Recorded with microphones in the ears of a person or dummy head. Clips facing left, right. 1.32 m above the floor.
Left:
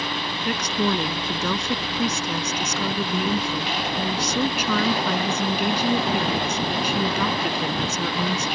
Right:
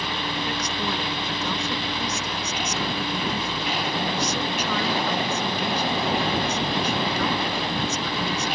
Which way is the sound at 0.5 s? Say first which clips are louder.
Left 5 dB; 55° left (ahead or behind).